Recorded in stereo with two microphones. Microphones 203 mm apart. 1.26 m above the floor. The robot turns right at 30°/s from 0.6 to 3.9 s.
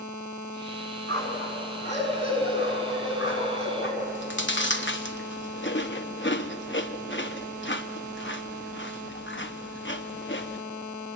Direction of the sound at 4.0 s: 65° left (ahead or behind).